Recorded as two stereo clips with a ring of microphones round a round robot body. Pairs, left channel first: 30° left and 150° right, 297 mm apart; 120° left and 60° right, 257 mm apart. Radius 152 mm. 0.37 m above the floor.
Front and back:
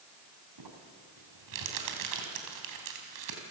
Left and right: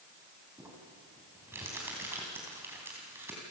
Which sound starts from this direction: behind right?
Crumpling, at 0.6 s.